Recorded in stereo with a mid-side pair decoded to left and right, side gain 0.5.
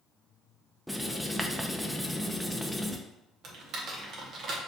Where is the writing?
5° right, 0.5 m.